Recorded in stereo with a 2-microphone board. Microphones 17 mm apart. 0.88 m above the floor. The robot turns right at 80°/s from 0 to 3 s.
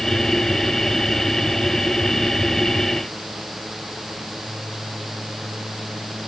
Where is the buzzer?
I don't hear a buzzer.